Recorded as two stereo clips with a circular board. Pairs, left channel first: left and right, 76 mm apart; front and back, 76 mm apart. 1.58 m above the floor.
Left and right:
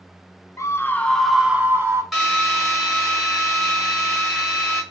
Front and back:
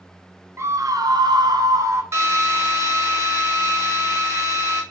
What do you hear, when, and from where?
0.6 s a scream: 130° left, 0.7 m; by 2.0 s 140° right, 0.9 m
2.1 s a drill: 175° right, 1.1 m